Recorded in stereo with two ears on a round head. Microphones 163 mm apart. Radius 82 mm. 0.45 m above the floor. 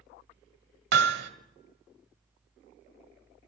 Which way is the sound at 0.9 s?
60° right (ahead or behind).